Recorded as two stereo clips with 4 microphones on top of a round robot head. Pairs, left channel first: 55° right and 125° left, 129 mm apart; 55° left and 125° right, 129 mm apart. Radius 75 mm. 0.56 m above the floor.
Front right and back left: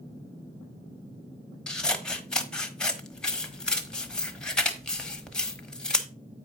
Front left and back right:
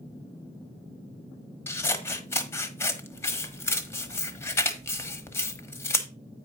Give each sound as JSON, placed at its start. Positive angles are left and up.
{"t": 1.7, "sound": "scissors", "azimuth_deg": 20, "distance_m": 1.2}